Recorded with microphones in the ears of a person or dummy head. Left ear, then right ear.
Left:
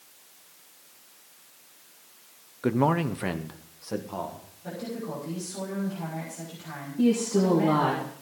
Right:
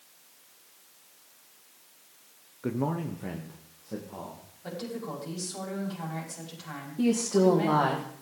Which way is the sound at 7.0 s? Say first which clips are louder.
Even; 25° right (ahead or behind).